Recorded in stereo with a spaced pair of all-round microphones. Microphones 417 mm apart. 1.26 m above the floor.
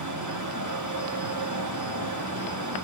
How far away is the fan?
About 0.9 m.